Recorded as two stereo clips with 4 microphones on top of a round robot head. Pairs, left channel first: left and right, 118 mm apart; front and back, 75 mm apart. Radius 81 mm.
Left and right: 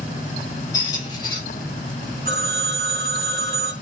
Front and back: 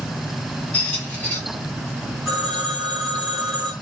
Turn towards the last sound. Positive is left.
turn(degrees=-100)